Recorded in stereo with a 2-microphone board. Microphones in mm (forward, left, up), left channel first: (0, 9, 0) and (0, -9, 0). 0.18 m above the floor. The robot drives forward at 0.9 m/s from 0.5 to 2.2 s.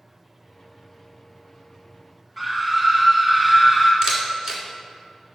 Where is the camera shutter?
35° right (ahead or behind), 1.9 m.